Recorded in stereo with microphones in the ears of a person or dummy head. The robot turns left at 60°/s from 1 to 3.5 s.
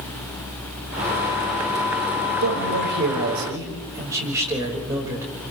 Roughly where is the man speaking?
Right.